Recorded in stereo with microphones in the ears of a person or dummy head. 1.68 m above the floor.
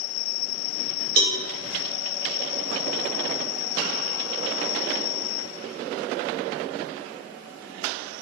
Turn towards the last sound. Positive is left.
turn(degrees=-55)  # may be behind; listen again after turning